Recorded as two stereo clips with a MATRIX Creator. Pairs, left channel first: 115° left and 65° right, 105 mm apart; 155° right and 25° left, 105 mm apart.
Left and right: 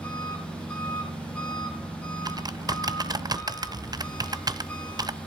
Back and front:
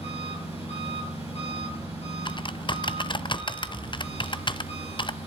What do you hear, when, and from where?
0.0 s an engine running: 170° right, 9.5 m
2.2 s typing on a keyboard: 120° right, 0.6 m